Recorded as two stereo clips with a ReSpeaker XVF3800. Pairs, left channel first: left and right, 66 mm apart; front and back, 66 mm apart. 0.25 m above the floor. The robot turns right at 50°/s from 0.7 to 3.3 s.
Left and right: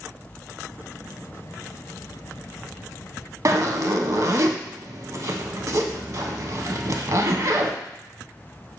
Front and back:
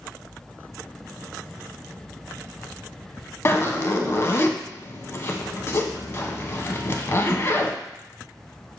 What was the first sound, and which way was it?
A zipper, 50° right.